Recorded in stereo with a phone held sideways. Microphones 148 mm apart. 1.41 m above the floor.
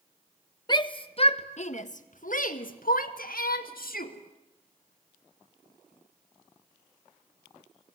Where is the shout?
30° left (ahead or behind), 1.4 m; by 4.1 s 85° left, 2.5 m.